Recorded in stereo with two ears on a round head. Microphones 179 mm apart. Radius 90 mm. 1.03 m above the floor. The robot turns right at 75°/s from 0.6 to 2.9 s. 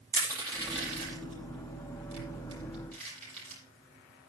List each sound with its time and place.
0.1 s crushing: 15° right (ahead or behind), 8 m; by 3.6 s 5° left (ahead or behind), 8 m